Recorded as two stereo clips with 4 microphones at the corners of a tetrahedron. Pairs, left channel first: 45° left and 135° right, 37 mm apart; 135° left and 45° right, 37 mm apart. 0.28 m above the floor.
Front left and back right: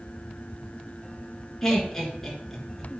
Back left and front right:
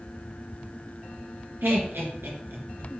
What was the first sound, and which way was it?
Laughter, 35° right.